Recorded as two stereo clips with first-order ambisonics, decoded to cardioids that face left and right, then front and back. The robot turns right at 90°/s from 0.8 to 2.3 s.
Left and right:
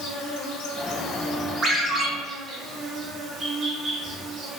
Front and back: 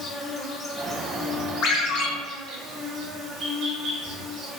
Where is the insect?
80° left, 1.1 m; by 4.6 s 145° right, 1.1 m.